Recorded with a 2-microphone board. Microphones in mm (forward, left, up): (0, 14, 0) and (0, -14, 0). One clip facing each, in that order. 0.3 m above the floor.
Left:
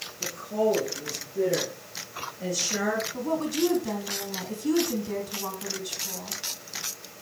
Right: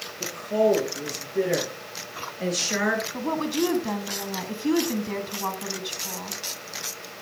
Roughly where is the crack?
I don't hear a crack.